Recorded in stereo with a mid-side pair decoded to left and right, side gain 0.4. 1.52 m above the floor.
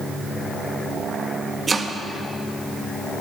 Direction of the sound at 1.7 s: 30° right.